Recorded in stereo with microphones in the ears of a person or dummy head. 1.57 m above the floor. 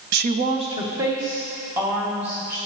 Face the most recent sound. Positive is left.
turn(degrees=-15)  # may be behind; listen again after turning